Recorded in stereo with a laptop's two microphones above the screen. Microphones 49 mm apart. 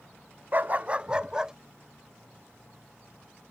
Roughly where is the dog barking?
Right.